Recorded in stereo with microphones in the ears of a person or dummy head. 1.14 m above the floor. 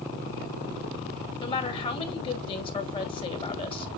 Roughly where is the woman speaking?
Left.